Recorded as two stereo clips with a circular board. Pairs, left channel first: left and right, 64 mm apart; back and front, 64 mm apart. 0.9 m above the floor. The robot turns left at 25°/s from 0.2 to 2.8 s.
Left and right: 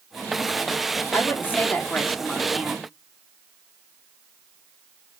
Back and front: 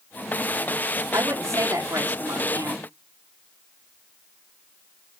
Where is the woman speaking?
40° left, 2.5 m; by 2.9 s straight ahead, 2.5 m.